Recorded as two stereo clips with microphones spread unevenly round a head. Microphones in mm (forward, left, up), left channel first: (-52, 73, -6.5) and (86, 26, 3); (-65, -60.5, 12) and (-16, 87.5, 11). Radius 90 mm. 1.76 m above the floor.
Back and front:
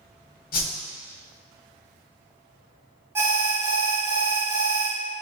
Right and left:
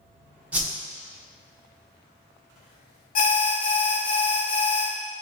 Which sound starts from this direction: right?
An alarm, at 3.1 s.